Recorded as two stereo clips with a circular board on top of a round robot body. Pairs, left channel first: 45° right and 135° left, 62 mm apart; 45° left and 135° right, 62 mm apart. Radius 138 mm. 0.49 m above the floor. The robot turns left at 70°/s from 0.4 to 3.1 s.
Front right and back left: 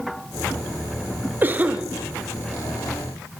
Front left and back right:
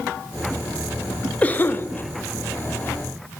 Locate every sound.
1.4 s a cough: 100° left, 0.8 m; by 1.9 s 70° left, 0.8 m